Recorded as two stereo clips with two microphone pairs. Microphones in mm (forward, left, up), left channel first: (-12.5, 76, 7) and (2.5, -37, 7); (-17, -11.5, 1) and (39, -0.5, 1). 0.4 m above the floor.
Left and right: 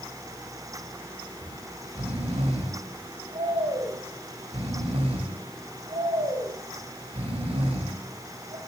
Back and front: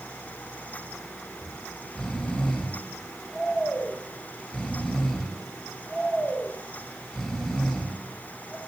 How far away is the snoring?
About 1.5 m.